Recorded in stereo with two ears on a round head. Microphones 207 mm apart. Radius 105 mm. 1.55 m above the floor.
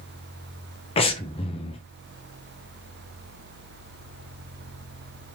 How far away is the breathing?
About 0.6 m.